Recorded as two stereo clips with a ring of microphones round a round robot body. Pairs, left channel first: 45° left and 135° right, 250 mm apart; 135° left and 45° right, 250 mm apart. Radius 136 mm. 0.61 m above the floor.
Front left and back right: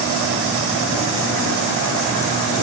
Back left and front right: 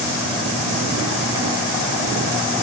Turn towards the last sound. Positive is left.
No sound to turn to.